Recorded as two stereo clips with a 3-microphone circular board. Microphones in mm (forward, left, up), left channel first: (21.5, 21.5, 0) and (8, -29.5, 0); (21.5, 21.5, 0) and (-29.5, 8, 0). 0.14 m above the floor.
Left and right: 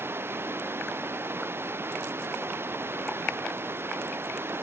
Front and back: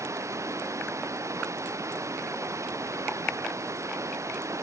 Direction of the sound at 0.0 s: 145° right.